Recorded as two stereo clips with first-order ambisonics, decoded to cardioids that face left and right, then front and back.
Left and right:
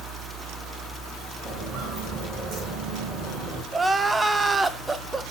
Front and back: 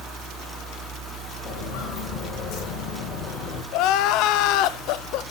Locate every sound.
1.4 s footsteps: 30° right, 4.5 m; by 3.6 s 40° right, 4 m
3.7 s crying: 10° right, 0.6 m